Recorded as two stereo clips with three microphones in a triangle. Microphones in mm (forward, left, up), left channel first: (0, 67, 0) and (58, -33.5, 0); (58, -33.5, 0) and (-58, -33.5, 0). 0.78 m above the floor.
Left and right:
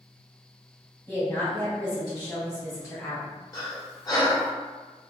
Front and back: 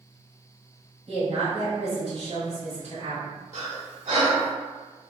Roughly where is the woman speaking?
Behind.